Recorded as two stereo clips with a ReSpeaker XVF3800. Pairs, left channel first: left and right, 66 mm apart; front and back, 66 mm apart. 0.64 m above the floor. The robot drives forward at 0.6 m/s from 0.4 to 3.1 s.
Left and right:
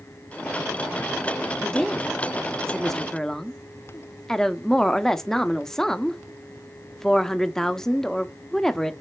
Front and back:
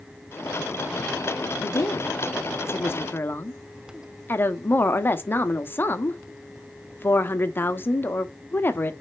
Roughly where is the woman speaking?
Ahead.